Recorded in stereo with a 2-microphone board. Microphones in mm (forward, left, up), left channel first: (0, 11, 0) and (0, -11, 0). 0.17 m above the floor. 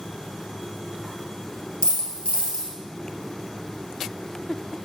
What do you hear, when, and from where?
1.8 s a dropped coin: 50° left (ahead or behind), 1.5 m